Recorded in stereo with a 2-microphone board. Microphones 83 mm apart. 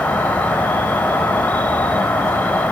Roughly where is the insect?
Centre.